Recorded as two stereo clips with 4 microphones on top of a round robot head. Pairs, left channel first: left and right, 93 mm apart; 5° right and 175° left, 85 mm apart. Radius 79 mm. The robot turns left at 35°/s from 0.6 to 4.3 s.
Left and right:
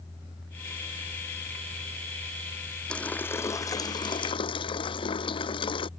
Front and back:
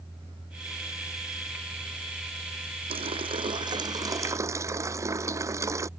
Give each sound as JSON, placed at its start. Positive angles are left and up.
{"t": 2.9, "sound": "a running tap", "azimuth_deg": 170}